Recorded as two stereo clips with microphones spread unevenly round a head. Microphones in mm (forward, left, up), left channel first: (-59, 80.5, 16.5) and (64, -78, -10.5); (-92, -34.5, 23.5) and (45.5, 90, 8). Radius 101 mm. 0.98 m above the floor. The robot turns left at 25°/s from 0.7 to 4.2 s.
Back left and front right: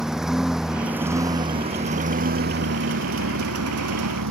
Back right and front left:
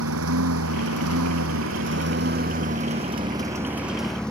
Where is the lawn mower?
35° left; by 4.3 s 50° right.